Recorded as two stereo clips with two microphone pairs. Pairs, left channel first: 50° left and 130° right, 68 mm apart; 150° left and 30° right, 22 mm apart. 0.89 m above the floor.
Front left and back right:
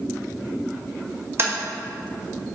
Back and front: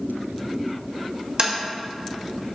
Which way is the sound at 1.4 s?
85° right.